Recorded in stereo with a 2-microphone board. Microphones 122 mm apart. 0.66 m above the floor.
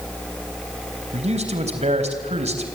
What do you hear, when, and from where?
1.1 s a man speaking: 75° right (ahead or behind), 3.5 m